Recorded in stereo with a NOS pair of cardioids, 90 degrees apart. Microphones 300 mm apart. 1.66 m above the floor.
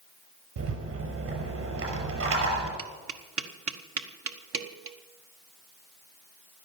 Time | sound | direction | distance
0.6 | a rattle | 50° right | 6 m
2.8 | tapping | 50° right | 1.5 m